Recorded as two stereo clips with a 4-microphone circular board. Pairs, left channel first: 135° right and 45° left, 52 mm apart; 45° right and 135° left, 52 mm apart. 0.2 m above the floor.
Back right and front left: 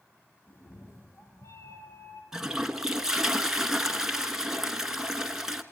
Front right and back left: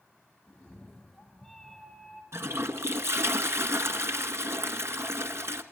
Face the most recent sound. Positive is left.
turn(degrees=120)